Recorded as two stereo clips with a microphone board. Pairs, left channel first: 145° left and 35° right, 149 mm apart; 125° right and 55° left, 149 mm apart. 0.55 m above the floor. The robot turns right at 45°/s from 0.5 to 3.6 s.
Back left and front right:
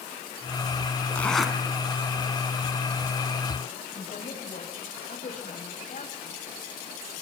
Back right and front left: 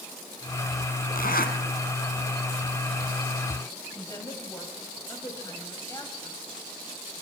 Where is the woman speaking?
170° left, 3.5 m.